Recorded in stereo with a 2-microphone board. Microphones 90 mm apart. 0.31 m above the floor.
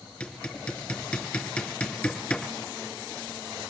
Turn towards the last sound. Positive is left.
turn(degrees=10)  # may be behind; listen again after turning